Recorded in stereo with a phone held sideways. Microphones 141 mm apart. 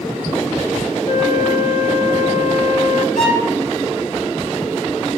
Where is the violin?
85° left, 2.5 m.